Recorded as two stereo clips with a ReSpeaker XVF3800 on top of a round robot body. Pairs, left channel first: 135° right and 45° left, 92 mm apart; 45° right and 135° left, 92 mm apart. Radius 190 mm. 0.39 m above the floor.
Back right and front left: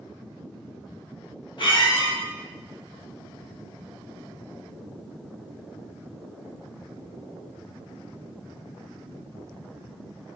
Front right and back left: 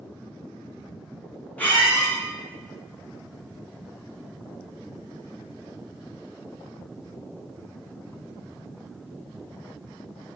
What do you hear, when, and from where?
1.6 s a squeak: 115° right, 1.4 m